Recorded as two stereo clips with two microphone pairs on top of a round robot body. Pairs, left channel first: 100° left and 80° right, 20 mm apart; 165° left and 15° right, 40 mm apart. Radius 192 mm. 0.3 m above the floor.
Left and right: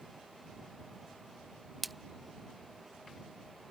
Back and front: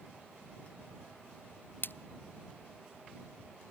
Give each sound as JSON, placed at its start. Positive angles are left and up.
{"t": 1.8, "sound": "a splash", "azimuth_deg": -170}